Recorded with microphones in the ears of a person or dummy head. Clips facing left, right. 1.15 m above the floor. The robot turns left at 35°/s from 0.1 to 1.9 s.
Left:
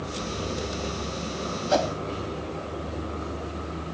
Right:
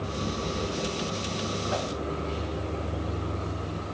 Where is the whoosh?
75° left (ahead or behind); by 1.9 s 65° left (ahead or behind).